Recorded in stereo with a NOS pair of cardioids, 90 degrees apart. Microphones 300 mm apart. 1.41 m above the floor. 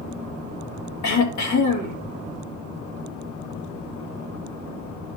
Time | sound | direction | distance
1.0 | throat clearing | 65° left | 2.5 m